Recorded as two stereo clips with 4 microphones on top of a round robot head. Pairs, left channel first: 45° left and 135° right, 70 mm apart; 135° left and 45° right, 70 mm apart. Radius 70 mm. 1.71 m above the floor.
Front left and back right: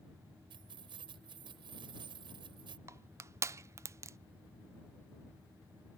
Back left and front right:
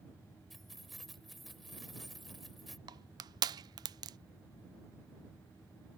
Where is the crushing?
80° right.